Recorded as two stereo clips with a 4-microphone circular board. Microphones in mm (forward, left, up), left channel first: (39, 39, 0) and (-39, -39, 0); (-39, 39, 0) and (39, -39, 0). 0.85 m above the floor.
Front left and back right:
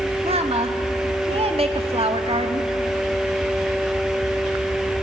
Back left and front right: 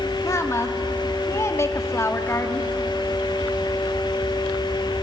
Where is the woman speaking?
160° right, 1.2 m.